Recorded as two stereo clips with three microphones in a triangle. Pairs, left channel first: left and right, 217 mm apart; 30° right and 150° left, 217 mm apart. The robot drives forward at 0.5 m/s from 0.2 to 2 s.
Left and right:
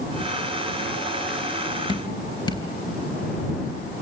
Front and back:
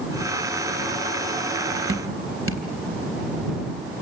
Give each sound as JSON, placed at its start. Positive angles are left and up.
{"t": 1.9, "sound": "dripping", "azimuth_deg": 160, "distance_m": 3.0}